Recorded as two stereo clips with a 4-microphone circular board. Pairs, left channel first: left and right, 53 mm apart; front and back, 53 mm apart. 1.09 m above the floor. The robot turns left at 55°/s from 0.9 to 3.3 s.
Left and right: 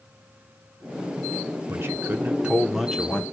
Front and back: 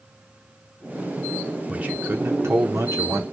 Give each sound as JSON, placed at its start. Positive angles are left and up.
{"t": 1.7, "sound": "a man speaking", "azimuth_deg": -115, "distance_m": 0.8}